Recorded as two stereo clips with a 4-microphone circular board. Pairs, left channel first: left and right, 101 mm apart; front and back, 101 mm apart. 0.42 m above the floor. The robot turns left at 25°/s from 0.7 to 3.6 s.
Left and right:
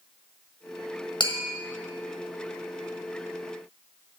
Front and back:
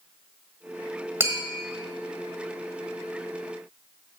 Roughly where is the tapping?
Behind left.